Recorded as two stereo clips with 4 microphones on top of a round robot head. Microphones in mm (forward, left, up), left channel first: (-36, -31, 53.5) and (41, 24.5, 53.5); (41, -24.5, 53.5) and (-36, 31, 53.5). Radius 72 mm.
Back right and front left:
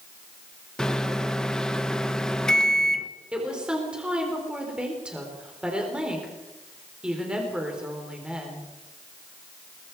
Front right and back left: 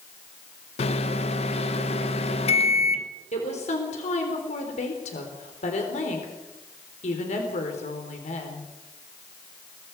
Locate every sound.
0.8 s a microwave: 60° right, 1.1 m
3.3 s a woman speaking: 45° right, 3.5 m